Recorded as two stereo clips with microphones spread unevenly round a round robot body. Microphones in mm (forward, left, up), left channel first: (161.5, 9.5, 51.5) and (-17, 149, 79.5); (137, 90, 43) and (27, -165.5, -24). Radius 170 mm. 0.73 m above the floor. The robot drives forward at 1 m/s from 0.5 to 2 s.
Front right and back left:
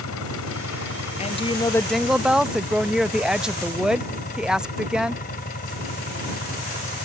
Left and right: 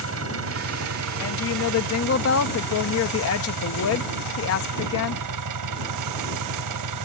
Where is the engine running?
75° right; by 7.0 s 100° right.